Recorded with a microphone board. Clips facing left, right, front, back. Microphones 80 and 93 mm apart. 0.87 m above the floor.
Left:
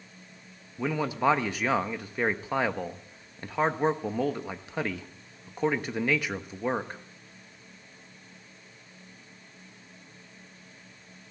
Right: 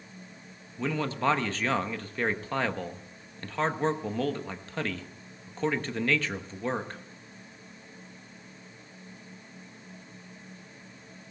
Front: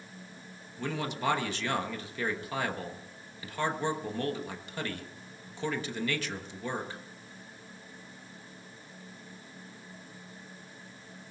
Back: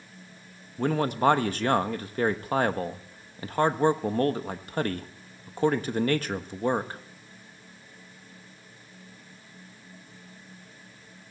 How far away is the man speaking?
About 1.1 m.